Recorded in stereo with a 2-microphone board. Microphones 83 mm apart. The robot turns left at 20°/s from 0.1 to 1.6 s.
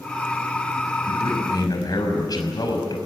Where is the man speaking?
60° left (ahead or behind), 5.5 m; by 3.0 s 50° left (ahead or behind), 5.5 m.